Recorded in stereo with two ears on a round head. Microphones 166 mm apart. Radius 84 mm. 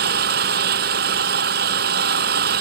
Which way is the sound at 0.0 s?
55° right (ahead or behind).